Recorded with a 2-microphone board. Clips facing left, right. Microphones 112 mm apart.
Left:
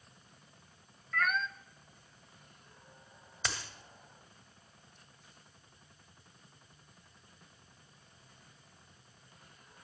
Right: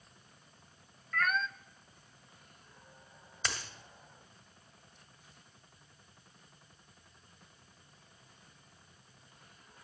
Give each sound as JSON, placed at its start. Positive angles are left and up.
{"t": 1.1, "sound": "a cat meowing", "side_deg": 5, "distance_m": 0.6}
{"t": 3.5, "sound": "a dropped coin", "side_deg": 0, "distance_m": 1.8}